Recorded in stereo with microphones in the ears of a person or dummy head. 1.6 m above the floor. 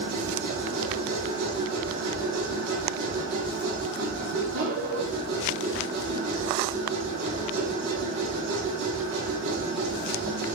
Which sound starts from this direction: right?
A machine running, at 0.0 s.